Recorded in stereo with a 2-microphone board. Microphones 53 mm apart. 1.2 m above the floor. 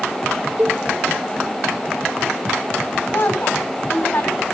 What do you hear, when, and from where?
0.6 s a cowbell: 40° right (ahead or behind), 2 m
3.1 s a woman speaking: 45° left (ahead or behind), 7 m